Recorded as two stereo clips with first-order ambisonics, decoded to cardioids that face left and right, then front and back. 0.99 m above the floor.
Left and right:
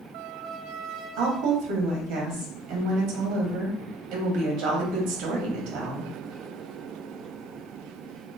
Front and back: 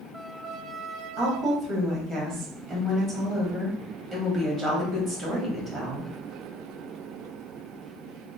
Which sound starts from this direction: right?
A woman speaking, at 1.2 s.